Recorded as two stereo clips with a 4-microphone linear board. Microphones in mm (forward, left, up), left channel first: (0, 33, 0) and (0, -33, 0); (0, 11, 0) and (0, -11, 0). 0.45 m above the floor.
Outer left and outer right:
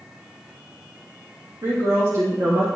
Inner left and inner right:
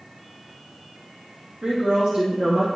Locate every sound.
1.6 s a woman speaking: 70° right (ahead or behind), 2.5 m; by 2.7 s 55° right (ahead or behind), 1.4 m